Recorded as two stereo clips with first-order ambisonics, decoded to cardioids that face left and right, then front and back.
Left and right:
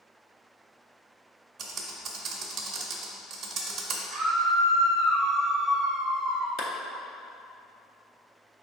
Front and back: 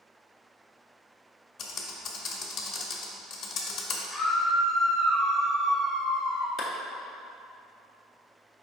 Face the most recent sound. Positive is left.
turn(degrees=55)